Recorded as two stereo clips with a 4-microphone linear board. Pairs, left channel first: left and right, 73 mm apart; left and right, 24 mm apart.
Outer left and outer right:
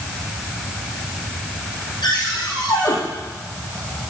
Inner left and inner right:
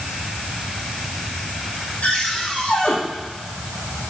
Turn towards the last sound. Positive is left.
turn(degrees=75)  # may be behind; listen again after turning